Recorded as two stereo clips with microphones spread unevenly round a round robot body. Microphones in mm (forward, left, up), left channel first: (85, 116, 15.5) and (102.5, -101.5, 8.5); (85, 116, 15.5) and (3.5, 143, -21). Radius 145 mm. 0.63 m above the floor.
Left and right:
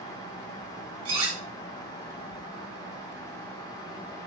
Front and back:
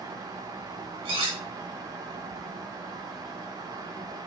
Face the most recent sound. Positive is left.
turn(degrees=-160)